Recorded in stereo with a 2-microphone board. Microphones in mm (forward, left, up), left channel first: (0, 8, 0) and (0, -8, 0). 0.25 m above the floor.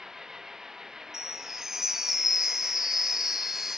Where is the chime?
25° right (ahead or behind).